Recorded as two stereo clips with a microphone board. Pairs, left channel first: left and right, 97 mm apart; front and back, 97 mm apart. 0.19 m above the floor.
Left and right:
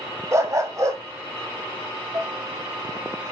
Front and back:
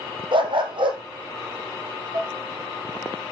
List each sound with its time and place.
0.3 s a dog barking: 150° right, 2 m
2.1 s dishes clattering: 140° right, 1.4 m